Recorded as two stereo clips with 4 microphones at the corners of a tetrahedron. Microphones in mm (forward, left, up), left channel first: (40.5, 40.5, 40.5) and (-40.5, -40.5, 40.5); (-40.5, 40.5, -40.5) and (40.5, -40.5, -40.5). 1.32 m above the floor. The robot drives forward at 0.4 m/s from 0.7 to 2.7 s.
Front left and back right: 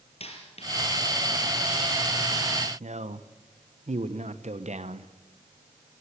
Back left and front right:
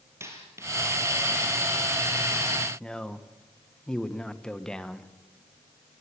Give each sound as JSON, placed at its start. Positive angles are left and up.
{"t": 0.2, "sound": "a dropped coin", "azimuth_deg": 20, "distance_m": 4.0}
{"t": 2.8, "sound": "a man speaking", "azimuth_deg": -140, "distance_m": 1.1}